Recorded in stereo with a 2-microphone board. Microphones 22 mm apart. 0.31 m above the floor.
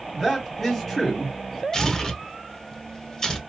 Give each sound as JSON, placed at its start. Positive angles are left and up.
{"t": 0.1, "sound": "a man speaking", "side_deg": 15, "distance_m": 1.8}
{"t": 1.7, "sound": "tearing paper", "side_deg": 30, "distance_m": 1.0}